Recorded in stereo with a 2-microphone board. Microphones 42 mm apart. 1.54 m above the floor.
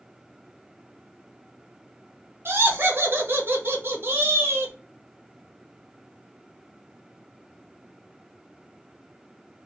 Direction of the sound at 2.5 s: 60° right (ahead or behind).